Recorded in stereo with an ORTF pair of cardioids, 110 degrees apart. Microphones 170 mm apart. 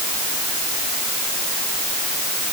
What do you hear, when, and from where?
Only background noise.